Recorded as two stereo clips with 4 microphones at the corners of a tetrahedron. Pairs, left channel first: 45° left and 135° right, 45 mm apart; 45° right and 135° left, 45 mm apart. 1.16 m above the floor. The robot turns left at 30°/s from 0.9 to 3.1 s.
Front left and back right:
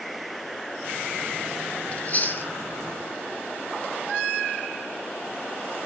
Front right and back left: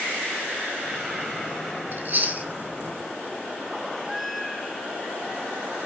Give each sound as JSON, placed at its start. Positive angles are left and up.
{"t": 1.9, "sound": "chewing", "azimuth_deg": 100, "distance_m": 2.5}